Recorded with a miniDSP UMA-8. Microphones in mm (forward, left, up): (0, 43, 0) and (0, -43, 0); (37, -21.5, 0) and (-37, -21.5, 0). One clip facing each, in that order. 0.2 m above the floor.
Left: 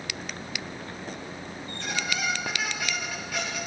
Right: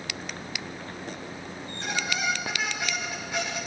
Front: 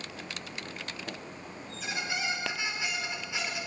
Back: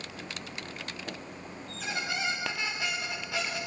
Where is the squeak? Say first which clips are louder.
Right 1 dB, back 1 dB; 155° right, 7.5 m.